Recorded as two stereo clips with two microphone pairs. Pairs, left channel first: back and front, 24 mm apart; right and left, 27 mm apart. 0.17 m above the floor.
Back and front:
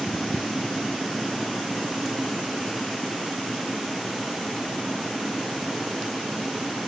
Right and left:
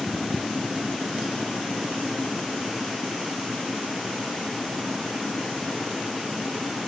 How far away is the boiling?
I don't hear boiling.